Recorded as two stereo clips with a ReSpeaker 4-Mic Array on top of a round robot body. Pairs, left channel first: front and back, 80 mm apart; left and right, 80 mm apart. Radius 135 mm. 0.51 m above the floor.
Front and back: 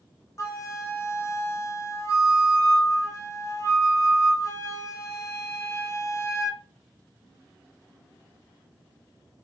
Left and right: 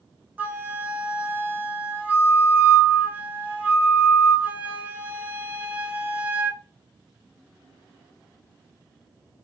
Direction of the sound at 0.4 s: 30° right.